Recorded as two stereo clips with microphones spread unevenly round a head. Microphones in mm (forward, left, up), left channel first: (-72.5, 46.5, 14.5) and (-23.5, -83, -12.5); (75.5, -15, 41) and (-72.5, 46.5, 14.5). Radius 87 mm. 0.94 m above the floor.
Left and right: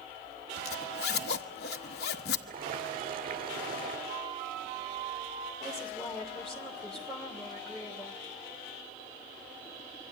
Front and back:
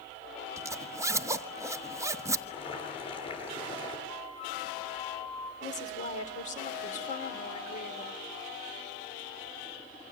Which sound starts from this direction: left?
A zipper, at 0.6 s.